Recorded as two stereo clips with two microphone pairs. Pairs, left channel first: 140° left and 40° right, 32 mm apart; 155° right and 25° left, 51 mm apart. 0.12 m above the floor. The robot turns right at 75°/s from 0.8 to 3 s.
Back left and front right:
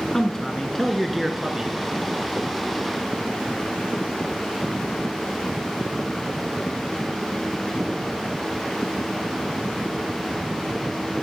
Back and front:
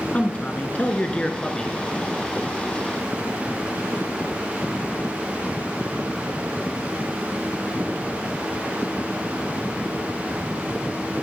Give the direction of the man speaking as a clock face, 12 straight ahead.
5 o'clock.